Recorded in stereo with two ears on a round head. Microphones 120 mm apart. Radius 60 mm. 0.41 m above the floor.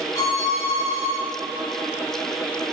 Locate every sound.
0.1 s a violin: 25° left (ahead or behind), 3 m